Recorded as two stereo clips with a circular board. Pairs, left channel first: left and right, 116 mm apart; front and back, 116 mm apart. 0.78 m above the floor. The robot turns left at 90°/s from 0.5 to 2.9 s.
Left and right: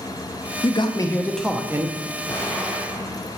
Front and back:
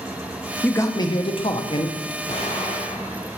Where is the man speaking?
70° left, 0.6 m; by 2.0 s 50° right, 0.6 m.